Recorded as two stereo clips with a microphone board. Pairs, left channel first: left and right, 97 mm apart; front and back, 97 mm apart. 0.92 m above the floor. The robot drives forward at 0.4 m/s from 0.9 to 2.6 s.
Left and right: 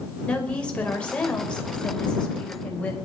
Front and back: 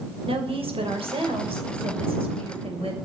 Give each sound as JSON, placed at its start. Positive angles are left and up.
{"t": 0.3, "sound": "a woman speaking", "azimuth_deg": 170, "distance_m": 4.5}